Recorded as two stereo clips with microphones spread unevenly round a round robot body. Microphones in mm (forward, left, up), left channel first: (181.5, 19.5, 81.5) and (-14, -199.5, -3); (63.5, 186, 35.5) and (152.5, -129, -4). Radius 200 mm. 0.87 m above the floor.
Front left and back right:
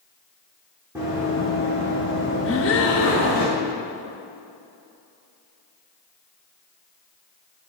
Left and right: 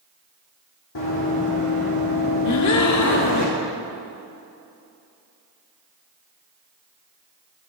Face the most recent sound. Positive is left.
turn(degrees=80)